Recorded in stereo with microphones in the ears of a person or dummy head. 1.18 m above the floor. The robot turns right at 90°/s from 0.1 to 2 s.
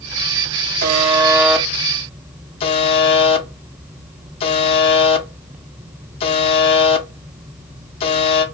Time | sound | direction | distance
0.8 | a buzzer | 50° right (ahead or behind) | 0.5 m